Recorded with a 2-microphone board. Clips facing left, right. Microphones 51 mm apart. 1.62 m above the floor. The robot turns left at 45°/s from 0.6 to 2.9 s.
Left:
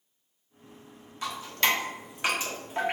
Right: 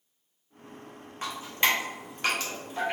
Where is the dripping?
35° right (ahead or behind), 1.1 m; by 2.9 s 40° left (ahead or behind), 1.1 m.